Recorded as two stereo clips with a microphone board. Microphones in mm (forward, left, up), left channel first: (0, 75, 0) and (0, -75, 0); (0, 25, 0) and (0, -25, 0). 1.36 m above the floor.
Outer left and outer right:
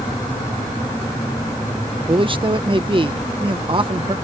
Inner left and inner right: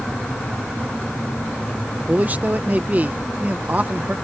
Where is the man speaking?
35° right (ahead or behind).